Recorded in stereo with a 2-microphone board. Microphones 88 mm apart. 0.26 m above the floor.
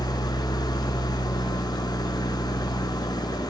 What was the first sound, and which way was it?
An engine running, 50° left (ahead or behind).